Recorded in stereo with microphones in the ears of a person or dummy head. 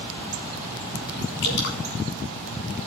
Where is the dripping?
55° left (ahead or behind), 1.8 m.